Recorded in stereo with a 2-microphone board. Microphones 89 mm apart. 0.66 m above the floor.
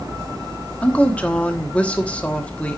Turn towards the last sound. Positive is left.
turn(degrees=15)  # may be behind; listen again after turning